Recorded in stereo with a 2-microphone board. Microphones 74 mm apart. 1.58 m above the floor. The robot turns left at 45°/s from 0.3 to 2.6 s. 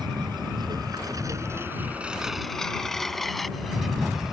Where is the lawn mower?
80° right; by 4.3 s 5° right (ahead or behind).